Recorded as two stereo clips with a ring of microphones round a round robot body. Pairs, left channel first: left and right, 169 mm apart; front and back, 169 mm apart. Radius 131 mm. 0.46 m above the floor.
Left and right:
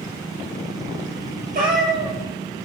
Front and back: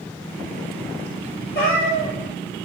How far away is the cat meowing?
About 3 m.